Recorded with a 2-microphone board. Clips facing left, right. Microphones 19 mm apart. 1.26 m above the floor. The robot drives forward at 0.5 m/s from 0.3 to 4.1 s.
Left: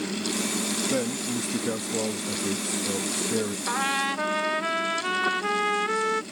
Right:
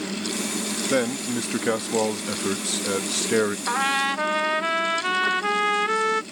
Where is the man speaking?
50° right (ahead or behind); by 3.6 s 75° right (ahead or behind).